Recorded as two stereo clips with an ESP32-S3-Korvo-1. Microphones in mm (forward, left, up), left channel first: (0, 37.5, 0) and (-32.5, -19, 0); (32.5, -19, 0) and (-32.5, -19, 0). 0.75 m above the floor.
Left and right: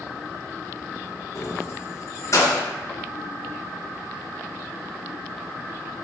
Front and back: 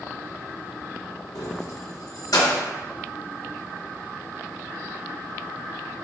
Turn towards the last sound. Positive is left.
turn(degrees=20)